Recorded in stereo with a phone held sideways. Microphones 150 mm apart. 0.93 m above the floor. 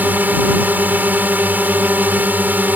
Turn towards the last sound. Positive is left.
turn(degrees=-10)  # may be behind; listen again after turning